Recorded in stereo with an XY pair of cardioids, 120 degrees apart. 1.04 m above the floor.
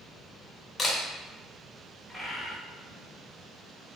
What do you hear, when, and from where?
0.8 s a camera shutter: 20° left, 0.8 m
2.1 s a bird: 5° left, 0.9 m